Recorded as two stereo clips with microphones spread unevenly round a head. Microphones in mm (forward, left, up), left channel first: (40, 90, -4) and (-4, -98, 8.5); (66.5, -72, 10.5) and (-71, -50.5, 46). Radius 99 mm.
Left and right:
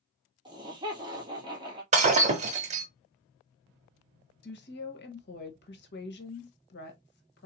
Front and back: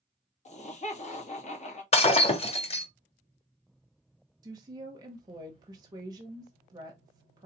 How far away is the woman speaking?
About 1.3 m.